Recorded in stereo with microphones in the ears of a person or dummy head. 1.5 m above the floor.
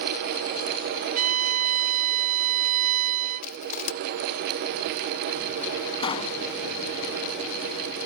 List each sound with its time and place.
1.2 s a violin: 45° right (ahead or behind)
3.4 s crushing: 50° left (ahead or behind)
6.0 s a pop: 25° left (ahead or behind)